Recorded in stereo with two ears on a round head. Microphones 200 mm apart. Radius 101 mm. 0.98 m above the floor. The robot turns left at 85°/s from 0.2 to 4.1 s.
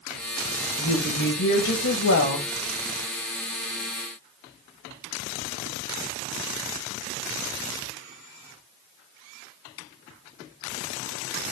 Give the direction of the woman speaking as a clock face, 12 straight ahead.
7 o'clock.